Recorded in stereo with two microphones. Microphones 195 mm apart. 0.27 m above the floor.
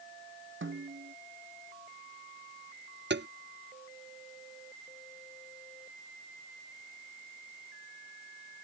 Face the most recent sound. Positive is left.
turn(degrees=-65)  # may be behind; listen again after turning